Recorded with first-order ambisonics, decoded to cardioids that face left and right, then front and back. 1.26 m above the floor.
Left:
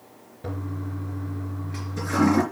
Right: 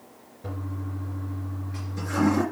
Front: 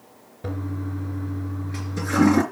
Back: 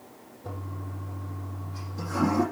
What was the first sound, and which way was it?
A toilet flushing, 20° left.